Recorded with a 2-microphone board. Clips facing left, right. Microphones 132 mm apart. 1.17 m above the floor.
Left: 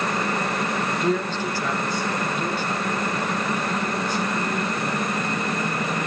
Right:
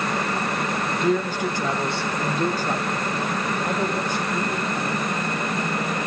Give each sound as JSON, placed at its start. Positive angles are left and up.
{"t": 1.0, "sound": "a man speaking", "side_deg": 0, "distance_m": 0.7}